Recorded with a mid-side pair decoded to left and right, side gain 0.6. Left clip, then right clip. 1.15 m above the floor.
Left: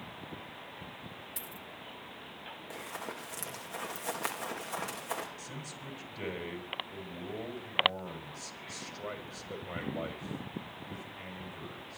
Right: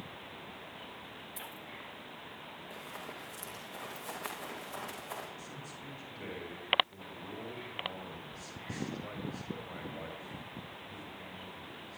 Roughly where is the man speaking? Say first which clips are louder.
Left 2 dB; ahead left.